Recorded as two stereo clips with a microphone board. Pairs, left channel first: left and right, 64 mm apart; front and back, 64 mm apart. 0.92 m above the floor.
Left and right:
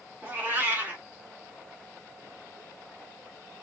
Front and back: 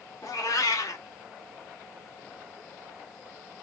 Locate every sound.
0.2 s a cat meowing: 25° right, 1.0 m